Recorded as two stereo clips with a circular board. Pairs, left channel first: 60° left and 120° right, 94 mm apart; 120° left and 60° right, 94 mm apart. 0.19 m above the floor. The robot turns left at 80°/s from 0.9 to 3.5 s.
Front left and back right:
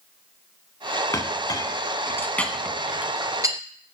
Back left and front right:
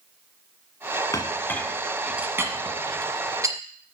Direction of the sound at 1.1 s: 95° left.